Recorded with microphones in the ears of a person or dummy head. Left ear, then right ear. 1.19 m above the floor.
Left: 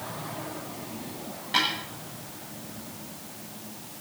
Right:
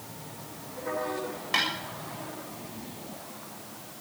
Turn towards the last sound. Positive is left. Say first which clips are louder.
# left 2 dB
turn(degrees=-40)  # may be behind; listen again after turning